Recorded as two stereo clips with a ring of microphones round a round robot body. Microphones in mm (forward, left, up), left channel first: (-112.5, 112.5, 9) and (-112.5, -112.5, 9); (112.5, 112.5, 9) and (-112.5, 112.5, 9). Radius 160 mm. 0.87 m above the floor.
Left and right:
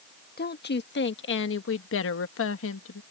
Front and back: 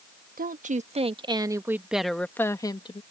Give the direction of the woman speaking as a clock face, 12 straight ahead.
8 o'clock.